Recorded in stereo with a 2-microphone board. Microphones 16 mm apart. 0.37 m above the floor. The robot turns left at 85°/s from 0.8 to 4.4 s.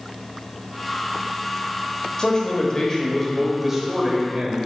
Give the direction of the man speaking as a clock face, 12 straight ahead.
8 o'clock.